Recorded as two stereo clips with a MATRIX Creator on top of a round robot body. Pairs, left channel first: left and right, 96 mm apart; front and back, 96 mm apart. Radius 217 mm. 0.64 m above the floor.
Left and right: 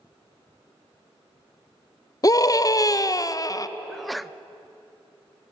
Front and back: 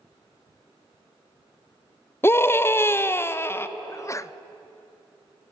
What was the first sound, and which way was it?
A scream, 55° left.